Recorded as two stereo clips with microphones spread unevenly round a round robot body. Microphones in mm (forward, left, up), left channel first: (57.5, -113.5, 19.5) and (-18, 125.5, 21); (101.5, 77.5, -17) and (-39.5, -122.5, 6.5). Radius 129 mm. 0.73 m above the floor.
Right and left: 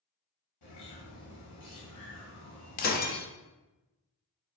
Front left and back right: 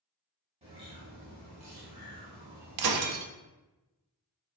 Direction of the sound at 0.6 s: 60° right.